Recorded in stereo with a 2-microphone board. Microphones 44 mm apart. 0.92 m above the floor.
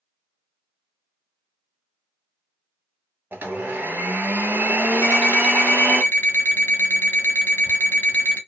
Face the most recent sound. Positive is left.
turn(degrees=50)  # may be behind; listen again after turning